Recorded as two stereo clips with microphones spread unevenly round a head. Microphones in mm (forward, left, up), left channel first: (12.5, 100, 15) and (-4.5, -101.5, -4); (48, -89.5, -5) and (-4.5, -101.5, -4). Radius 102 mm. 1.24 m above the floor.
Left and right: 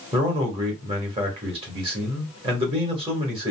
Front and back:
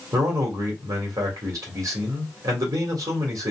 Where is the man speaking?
160° right, 1.4 m.